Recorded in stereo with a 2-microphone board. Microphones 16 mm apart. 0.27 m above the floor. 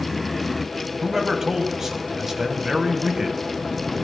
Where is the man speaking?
30° right (ahead or behind), 1.2 m.